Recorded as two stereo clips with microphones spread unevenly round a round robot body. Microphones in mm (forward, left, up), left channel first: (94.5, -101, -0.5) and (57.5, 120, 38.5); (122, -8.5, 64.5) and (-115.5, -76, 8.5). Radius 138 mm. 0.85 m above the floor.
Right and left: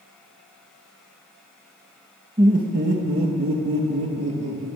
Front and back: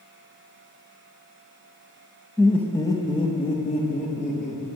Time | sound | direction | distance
2.4 | laughter | 150° left | 0.9 m